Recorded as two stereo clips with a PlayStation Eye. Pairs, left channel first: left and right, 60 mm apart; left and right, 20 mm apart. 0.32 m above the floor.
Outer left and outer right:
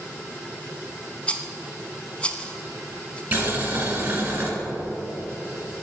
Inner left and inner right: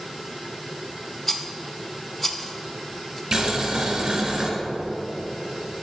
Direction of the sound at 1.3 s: 20° left (ahead or behind).